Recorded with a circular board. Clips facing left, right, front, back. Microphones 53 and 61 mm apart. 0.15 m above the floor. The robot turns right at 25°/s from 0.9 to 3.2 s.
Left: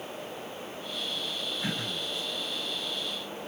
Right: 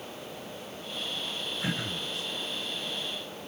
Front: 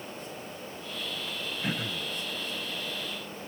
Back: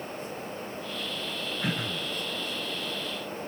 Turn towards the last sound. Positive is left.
turn(degrees=-130)